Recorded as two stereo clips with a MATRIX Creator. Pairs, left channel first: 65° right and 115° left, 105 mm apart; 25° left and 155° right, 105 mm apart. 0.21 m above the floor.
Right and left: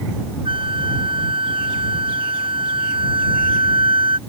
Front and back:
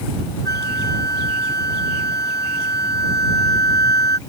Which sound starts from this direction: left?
A flute, at 0.5 s.